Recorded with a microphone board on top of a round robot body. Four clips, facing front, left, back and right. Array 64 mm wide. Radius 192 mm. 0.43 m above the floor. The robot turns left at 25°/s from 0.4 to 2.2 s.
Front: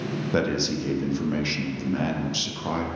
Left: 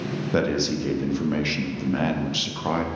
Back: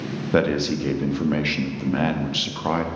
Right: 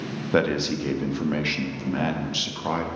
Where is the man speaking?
140° right, 1.0 m; by 2.9 s 175° left, 1.0 m.